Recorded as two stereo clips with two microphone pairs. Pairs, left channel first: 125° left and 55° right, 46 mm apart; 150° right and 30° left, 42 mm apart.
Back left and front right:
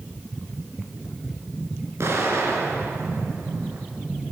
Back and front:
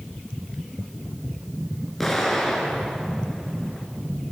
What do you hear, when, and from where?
2.0 s an explosion: 70° right, 4.5 m